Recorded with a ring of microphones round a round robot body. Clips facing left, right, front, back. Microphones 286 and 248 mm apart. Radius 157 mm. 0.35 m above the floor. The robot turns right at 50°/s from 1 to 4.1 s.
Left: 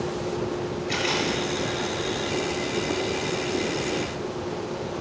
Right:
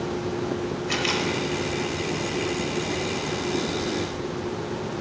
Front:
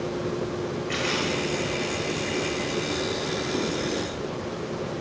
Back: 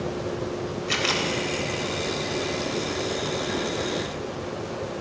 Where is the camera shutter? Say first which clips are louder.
Even, even; 155° right, 1.2 m; by 1.3 s 140° right, 1.2 m.